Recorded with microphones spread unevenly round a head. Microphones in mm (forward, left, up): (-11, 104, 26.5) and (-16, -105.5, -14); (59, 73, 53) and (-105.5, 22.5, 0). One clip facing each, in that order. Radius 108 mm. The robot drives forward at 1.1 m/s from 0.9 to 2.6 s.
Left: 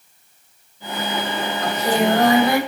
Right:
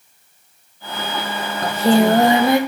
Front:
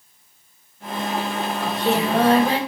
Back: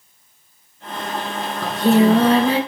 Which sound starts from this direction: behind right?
Singing, at 1.6 s.